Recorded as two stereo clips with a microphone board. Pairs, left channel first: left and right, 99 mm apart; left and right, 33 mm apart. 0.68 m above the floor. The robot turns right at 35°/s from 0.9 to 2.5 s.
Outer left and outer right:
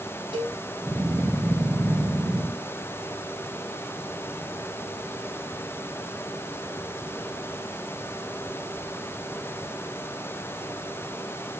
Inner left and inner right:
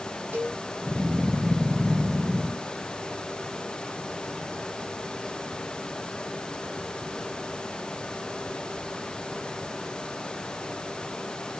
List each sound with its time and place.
0.3 s a cowbell: 60° right (ahead or behind), 2.5 m